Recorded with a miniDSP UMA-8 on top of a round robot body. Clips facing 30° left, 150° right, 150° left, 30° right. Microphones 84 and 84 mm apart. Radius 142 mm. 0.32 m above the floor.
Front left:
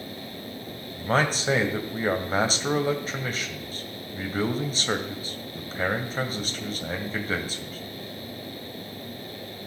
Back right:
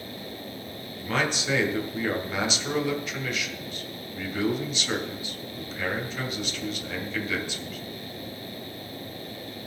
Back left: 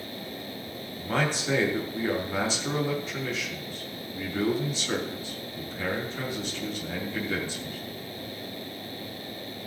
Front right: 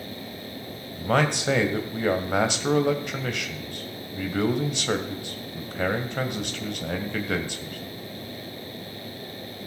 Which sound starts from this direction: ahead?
A man speaking, at 1.0 s.